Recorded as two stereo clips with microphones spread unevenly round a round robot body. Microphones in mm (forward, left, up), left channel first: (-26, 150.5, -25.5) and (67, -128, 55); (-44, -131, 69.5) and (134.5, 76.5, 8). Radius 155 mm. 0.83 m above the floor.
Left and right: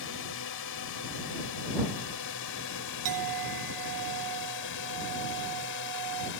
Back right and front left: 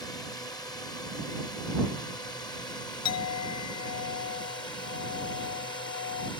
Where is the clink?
100° right.